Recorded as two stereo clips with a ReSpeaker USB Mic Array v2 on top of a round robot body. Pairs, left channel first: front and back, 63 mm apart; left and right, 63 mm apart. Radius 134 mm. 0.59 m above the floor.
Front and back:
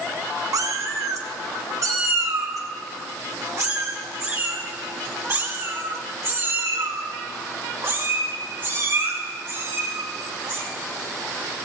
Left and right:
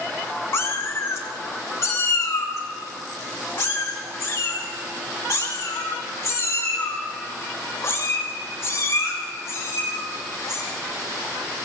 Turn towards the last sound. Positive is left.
turn(degrees=135)